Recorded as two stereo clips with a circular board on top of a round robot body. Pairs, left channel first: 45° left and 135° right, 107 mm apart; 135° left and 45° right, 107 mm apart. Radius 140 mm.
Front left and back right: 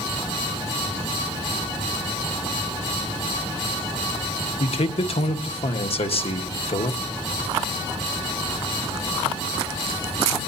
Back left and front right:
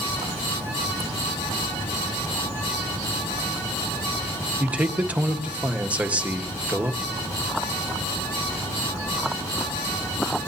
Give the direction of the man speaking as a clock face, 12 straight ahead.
11 o'clock.